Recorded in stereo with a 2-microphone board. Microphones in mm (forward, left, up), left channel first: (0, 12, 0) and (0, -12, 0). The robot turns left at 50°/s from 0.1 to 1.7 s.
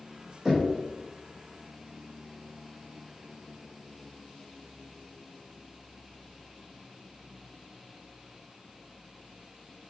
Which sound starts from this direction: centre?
Knocking, at 0.5 s.